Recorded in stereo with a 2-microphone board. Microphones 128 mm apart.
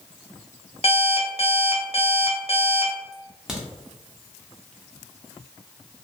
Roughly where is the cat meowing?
No cat meowing in this recording.